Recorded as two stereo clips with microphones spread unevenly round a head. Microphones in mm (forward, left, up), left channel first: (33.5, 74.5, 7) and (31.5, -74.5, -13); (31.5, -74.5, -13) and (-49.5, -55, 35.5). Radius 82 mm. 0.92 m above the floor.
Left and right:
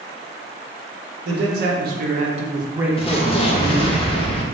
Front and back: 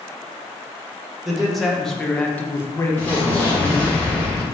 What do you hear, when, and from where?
1.2 s a man speaking: 95° right, 1.1 m; by 4.0 s 35° left, 0.9 m
3.0 s an explosion: 35° left, 0.6 m